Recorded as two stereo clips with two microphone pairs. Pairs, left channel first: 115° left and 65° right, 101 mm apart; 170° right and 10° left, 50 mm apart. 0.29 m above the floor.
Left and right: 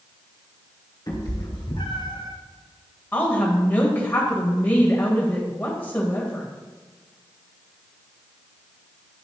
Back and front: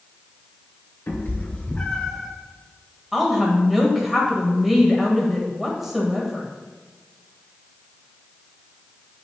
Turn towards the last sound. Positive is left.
turn(degrees=95)